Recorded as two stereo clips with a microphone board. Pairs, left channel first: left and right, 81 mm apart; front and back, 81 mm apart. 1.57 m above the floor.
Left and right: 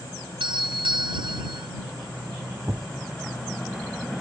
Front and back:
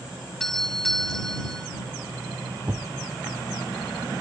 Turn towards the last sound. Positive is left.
turn(degrees=-135)